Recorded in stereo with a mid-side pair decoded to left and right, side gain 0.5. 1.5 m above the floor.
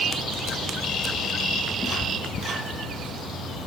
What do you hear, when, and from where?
1.8 s a cat meowing: 30° left, 5 m; by 2.9 s 40° left, 5 m